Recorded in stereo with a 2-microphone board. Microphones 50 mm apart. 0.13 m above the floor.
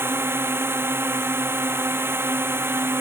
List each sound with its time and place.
0.0 s a drone: 55° right (ahead or behind)